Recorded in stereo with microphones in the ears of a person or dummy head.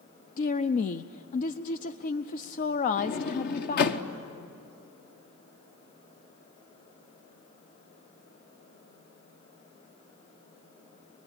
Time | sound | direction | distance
0.4 | a woman speaking | 40° left (ahead or behind) | 0.6 m
3.0 | a sliding door | 50° left (ahead or behind) | 1.3 m